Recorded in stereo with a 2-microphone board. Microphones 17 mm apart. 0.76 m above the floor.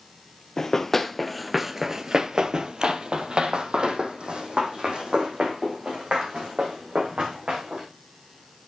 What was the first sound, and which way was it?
Running footsteps, 25° left (ahead or behind).